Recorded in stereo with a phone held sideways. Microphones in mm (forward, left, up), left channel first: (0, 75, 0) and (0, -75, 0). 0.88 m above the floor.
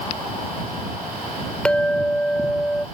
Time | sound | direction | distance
1.6 | a clink | 5° left (ahead or behind) | ?